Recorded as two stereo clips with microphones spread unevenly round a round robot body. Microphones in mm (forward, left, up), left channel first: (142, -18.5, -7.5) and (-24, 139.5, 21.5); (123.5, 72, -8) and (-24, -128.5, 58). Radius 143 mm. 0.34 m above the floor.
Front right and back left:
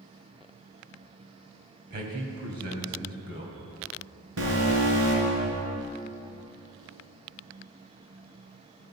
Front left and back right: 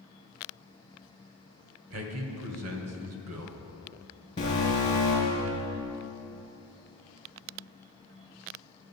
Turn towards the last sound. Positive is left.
turn(degrees=125)